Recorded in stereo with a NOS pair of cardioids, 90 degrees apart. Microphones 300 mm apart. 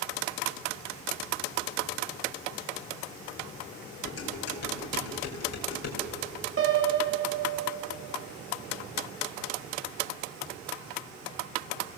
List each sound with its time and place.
4.0 s dishes clattering: 55° left, 5.5 m
6.6 s a piano: 40° right, 3 m